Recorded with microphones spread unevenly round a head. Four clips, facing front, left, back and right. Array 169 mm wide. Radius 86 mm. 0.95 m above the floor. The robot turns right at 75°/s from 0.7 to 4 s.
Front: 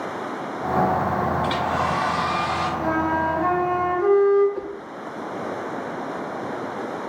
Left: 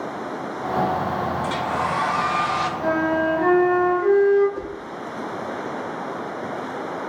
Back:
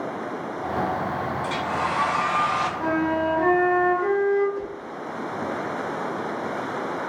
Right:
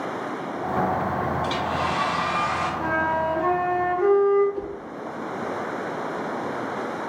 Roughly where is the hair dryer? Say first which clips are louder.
Left 1 dB, front 3 dB; ahead.